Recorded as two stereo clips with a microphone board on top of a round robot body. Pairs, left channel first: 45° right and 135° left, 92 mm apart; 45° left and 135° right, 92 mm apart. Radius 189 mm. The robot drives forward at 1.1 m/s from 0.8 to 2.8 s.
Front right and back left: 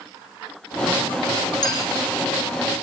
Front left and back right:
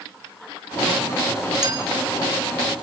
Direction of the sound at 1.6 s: 90° right.